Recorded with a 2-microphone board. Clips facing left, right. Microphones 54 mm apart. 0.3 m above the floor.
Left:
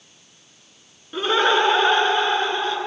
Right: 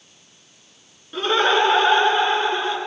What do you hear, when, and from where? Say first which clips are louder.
1.1 s laughter: even; 5° left (ahead or behind), 4 m; by 2.8 s 10° right (ahead or behind), 4 m